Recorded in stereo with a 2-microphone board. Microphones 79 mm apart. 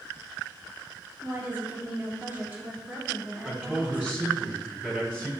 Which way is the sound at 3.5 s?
15° right (ahead or behind).